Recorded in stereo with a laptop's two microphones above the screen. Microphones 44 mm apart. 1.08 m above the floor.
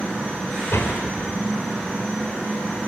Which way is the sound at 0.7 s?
70° left (ahead or behind).